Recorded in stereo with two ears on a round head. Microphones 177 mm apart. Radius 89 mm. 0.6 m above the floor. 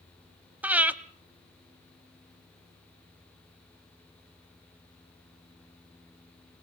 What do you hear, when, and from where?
0.6 s breathing: 10° right (ahead or behind), 0.7 m